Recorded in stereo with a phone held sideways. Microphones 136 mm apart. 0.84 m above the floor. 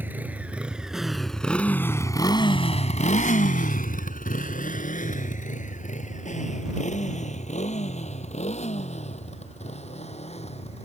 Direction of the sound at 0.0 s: 15° right (ahead or behind).